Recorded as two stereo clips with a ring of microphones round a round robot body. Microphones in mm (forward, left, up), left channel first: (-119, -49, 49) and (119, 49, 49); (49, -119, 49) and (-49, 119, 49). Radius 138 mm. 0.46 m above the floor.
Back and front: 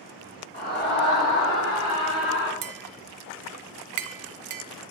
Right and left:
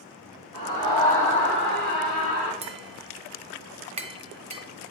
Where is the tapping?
45° left, 0.6 m.